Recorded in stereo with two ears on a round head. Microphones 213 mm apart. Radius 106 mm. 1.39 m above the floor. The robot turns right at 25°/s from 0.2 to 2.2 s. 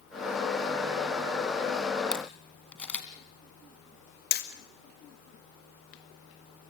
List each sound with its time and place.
2.1 s a camera shutter: 5° left (ahead or behind), 2 m
4.3 s hammering: 45° left (ahead or behind), 1.9 m